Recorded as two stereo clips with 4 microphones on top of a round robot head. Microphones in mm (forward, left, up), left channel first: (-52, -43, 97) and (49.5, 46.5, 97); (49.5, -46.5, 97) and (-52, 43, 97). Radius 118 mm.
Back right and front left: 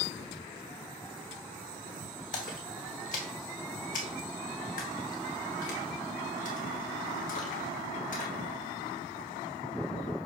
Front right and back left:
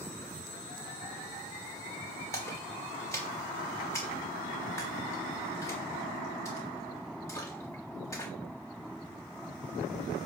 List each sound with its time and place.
2.3 s a splash: 110° right, 0.9 m